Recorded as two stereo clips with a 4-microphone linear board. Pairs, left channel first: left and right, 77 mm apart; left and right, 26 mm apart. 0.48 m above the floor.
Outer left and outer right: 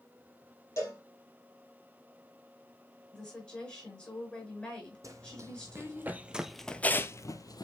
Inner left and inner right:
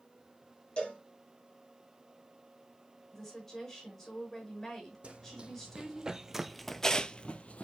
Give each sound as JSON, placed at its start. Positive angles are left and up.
{"t": 0.8, "sound": "a cowbell", "side_deg": 40, "distance_m": 3.5}
{"t": 3.1, "sound": "a woman speaking", "side_deg": 15, "distance_m": 5.5}
{"t": 5.0, "sound": "running footsteps", "side_deg": -45, "distance_m": 1.3}